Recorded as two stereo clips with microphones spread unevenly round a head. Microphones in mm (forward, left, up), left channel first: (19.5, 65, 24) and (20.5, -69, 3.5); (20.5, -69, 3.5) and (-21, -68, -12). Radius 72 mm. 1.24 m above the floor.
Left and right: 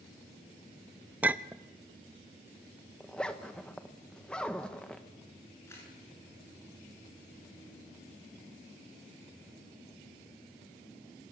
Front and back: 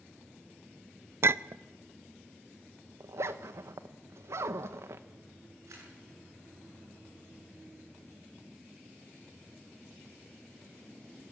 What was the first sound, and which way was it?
A clink, 175° right.